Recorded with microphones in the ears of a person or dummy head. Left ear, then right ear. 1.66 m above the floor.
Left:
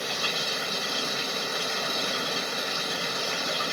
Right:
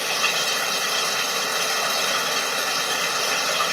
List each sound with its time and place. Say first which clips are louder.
0.0 s running water: right 6 dB; 45° right (ahead or behind)